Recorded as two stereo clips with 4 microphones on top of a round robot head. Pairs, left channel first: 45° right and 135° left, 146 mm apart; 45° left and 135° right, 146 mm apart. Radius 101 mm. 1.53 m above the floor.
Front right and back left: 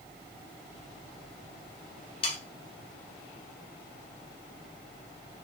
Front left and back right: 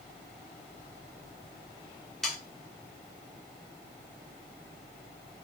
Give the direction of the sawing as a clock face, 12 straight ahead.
1 o'clock.